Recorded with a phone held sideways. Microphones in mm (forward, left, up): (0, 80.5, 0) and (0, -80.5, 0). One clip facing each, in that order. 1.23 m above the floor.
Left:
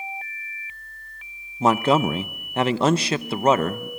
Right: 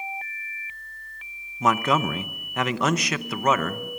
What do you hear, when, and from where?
1.6 s a man speaking: 30° left (ahead or behind), 0.7 m